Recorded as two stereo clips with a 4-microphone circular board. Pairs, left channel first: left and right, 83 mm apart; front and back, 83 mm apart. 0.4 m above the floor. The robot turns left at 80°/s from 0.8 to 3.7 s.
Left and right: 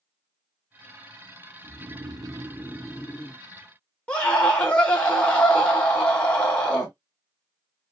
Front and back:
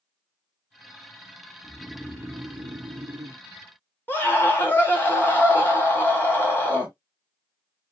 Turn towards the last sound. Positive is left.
turn(degrees=30)